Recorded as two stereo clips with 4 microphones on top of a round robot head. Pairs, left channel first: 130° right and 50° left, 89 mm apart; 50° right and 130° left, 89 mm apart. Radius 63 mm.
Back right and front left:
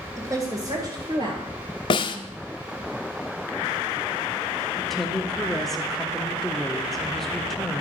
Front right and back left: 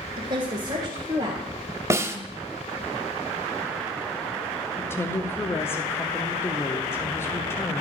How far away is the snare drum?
About 0.8 m.